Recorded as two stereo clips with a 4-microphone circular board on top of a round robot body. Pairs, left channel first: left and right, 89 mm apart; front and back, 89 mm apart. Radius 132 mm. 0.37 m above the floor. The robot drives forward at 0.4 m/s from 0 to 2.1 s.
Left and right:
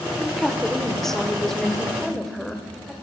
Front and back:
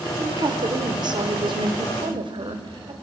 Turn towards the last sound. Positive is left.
turn(degrees=175)